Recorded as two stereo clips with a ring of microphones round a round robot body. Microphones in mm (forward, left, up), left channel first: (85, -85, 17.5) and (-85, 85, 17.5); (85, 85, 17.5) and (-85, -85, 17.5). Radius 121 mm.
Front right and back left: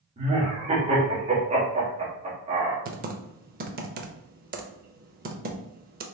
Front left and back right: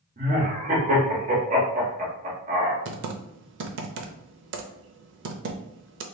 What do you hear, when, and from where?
0.2 s laughter: 175° right, 1.5 m
2.9 s typing on a keyboard: 175° right, 0.5 m